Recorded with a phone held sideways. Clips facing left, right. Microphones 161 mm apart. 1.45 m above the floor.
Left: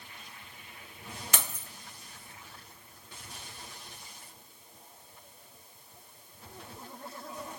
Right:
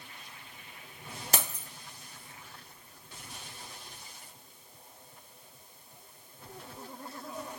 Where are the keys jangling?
40° right (ahead or behind), 0.6 m.